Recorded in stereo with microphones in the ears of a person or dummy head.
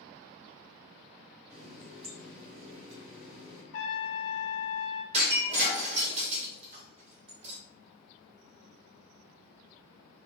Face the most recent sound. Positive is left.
turn(degrees=-35)  # may be behind; listen again after turning